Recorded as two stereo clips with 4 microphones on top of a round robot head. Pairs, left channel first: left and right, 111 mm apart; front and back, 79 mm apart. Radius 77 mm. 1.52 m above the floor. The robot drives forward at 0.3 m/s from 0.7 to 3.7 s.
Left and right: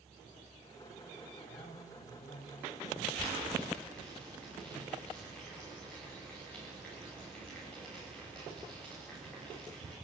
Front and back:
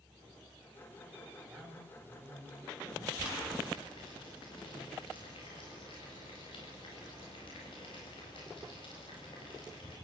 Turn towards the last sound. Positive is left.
turn(degrees=5)